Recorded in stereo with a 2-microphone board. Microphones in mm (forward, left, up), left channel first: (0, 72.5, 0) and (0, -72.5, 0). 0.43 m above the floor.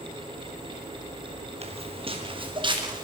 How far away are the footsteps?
About 3.5 m.